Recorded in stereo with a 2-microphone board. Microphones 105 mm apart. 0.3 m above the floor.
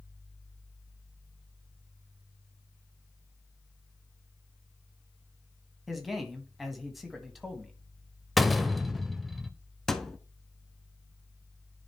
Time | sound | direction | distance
5.9 | a man speaking | centre (ahead or behind) | 1.6 m
8.4 | a door slam | centre (ahead or behind) | 0.6 m
9.9 | a thud | 5° left (ahead or behind) | 0.7 m